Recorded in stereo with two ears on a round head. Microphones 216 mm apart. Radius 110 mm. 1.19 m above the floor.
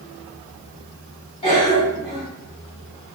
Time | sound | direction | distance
1.4 | a cough | 20° left (ahead or behind) | 1.6 m